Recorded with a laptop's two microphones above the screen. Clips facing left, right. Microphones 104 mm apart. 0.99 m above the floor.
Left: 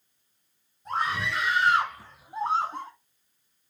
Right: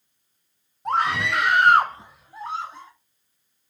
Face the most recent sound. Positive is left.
turn(degrees=45)  # may be behind; listen again after turning